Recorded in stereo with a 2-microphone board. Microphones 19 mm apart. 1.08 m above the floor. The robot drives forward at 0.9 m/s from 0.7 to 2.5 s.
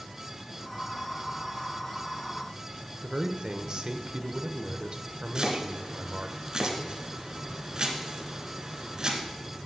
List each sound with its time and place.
3.0 s a man speaking: 45° right (ahead or behind), 0.5 m
5.3 s chopping: 40° right (ahead or behind), 1.1 m